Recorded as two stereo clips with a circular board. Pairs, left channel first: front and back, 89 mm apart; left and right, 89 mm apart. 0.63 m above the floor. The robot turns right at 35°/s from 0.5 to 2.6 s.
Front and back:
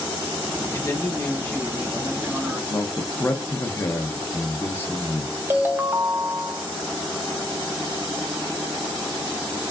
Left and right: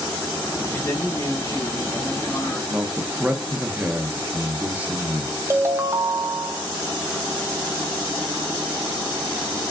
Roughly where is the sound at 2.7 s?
Ahead right.